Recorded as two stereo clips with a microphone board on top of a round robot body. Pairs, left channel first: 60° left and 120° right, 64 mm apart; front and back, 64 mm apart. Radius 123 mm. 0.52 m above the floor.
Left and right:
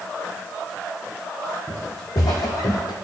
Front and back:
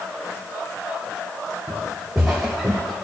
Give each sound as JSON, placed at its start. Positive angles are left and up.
{"t": 1.7, "sound": "footsteps", "azimuth_deg": 95, "distance_m": 2.5}